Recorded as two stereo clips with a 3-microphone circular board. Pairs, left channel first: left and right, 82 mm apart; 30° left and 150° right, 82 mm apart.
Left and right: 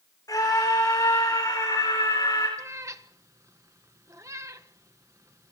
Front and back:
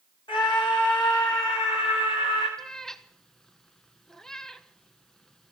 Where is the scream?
45° left, 9.5 m.